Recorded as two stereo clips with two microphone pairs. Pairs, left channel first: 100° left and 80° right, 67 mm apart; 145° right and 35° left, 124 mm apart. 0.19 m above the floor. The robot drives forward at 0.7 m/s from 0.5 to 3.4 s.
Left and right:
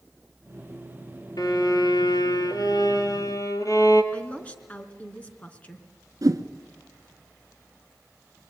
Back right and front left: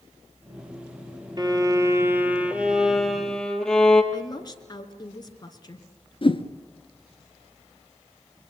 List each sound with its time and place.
1.4 s a violin: 90° left, 1.7 m; by 4.0 s 130° left, 2 m
4.1 s a woman speaking: 165° left, 2.5 m
6.2 s a whoosh: 105° right, 1.2 m